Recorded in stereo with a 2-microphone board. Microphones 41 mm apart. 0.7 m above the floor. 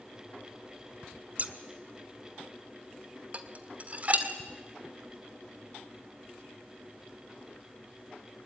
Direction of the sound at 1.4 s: 40° right (ahead or behind).